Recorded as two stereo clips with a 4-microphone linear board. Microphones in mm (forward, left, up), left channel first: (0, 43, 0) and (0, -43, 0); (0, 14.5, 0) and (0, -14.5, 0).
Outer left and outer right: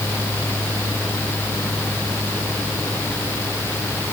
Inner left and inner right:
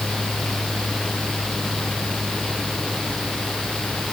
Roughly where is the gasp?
No gasp in this recording.